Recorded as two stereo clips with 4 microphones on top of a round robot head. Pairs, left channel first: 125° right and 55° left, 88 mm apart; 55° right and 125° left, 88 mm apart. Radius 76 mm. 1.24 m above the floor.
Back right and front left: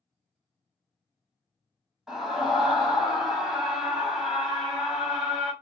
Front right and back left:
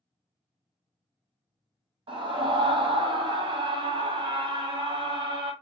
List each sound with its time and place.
2.1 s a scream: 140° left, 1.2 m